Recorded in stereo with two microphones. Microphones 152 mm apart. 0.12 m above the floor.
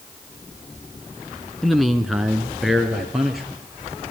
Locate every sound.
1.6 s a man speaking: centre (ahead or behind), 1.4 m